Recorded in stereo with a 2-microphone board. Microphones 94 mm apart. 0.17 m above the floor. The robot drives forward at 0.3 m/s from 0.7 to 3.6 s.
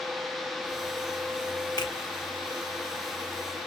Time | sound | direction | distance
1.8 | a finger snap | 45° left (ahead or behind) | 1.2 m